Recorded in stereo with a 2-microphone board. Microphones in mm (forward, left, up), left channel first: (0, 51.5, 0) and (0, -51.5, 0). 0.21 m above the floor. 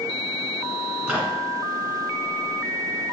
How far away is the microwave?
About 1.7 m.